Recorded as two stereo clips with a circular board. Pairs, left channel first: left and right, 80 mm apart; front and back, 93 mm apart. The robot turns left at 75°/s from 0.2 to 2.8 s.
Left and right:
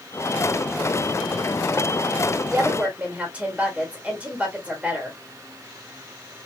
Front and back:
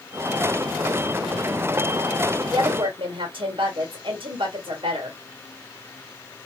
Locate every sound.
2.5 s a woman speaking: 145° right, 1.3 m; by 5.2 s 165° right, 1.3 m